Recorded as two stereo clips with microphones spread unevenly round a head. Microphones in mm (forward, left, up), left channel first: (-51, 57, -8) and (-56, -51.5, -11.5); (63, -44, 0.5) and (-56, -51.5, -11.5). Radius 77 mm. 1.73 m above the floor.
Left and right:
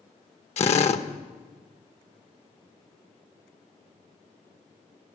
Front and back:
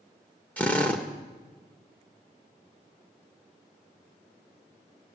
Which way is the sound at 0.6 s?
80° left.